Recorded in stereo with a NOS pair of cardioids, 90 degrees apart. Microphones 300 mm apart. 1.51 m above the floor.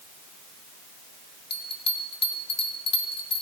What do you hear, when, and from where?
1.5 s a bell: 35° left, 1.5 m